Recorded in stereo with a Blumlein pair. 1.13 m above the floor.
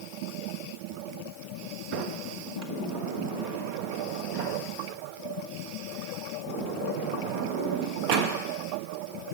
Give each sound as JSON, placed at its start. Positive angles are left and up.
{"t": 1.9, "sound": "a sliding door", "azimuth_deg": -35, "distance_m": 1.4}